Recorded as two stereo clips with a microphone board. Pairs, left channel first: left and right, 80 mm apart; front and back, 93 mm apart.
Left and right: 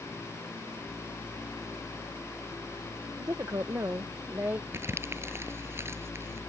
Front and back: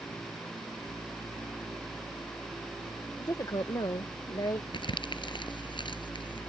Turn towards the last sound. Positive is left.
turn(degrees=-30)